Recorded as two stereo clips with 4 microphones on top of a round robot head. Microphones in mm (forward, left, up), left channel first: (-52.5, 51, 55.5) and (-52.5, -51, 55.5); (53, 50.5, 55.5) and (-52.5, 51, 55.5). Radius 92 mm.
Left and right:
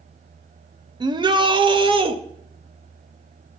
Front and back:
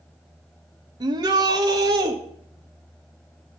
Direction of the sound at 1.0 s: 130° right.